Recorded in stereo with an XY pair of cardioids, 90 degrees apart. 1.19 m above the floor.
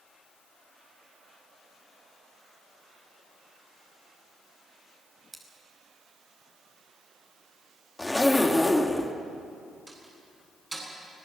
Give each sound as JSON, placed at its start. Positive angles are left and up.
{"t": 5.3, "sound": "scissors", "azimuth_deg": -25, "distance_m": 5.0}
{"t": 8.0, "sound": "a zipper", "azimuth_deg": 15, "distance_m": 1.8}
{"t": 9.9, "sound": "a door slam", "azimuth_deg": -30, "distance_m": 9.0}